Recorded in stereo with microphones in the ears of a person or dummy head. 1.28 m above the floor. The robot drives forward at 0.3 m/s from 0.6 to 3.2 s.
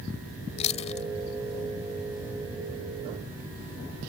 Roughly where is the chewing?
Left.